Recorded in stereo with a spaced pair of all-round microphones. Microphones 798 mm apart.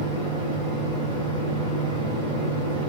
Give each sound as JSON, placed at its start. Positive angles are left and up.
{"t": 0.0, "sound": "a fan", "side_deg": -35, "distance_m": 2.0}